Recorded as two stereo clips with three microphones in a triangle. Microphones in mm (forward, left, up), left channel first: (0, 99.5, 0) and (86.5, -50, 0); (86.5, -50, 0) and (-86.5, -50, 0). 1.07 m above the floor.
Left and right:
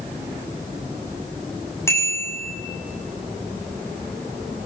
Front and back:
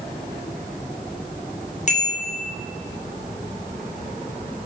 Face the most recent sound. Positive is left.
turn(degrees=45)